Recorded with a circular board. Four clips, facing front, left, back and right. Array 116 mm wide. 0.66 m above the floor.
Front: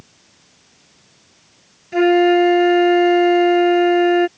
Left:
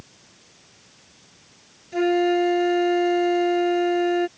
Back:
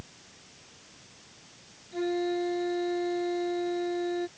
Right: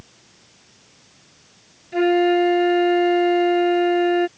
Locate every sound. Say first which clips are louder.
1.9 s a flute: right 3 dB, front 17 dB; 10° right